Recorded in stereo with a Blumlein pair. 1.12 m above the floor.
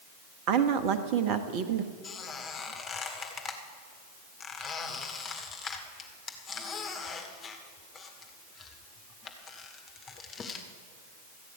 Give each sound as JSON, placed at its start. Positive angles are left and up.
{"t": 0.5, "sound": "a woman speaking", "azimuth_deg": -40, "distance_m": 1.3}
{"t": 2.0, "sound": "a squeak", "azimuth_deg": 20, "distance_m": 1.9}